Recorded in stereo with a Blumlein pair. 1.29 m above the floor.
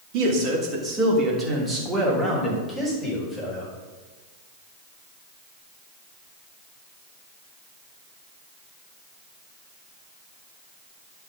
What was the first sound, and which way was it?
A man speaking, 40° right.